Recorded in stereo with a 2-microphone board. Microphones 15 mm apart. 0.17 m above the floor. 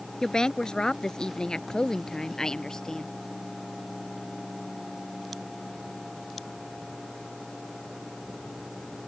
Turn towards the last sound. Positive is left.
turn(degrees=45)  # may be behind; listen again after turning